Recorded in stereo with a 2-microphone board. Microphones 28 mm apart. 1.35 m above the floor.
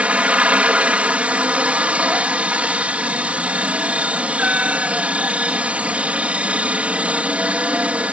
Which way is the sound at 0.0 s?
50° right (ahead or behind).